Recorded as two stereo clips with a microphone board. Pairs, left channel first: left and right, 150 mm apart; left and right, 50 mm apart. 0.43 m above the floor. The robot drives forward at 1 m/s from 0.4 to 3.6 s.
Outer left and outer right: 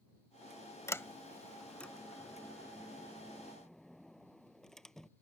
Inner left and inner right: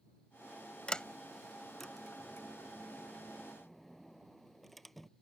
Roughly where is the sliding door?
Centre.